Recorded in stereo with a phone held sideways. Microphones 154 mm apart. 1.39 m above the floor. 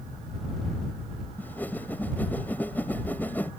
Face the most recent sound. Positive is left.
turn(degrees=10)  # may be behind; listen again after turning